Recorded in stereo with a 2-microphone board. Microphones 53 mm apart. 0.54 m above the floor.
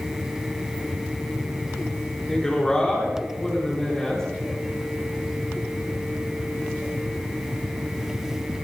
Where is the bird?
No bird in this recording.